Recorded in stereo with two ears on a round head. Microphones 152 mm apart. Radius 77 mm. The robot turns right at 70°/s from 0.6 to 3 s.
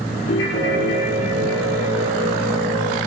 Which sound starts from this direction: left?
A ringtone, at 0.3 s.